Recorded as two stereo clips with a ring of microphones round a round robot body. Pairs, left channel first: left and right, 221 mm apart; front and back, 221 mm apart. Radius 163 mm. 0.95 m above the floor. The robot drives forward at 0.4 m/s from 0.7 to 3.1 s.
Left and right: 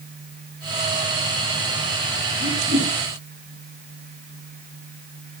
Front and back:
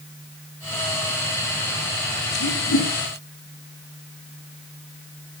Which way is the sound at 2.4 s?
20° right.